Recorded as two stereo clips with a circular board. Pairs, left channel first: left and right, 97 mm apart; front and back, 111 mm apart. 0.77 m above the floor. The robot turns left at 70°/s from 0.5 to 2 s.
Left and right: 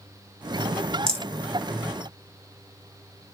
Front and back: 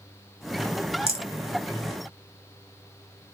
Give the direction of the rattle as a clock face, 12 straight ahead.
6 o'clock.